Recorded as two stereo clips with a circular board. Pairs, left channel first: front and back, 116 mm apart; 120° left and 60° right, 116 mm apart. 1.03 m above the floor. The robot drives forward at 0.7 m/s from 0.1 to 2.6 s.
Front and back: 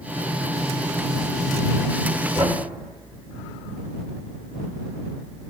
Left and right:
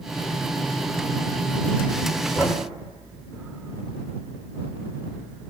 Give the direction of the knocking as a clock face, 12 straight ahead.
4 o'clock.